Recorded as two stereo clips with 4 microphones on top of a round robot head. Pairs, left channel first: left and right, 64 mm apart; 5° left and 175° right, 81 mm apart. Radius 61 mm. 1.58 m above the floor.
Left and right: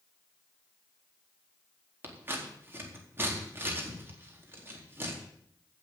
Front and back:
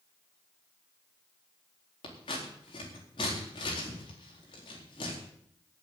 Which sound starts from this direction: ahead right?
Scissors, at 2.0 s.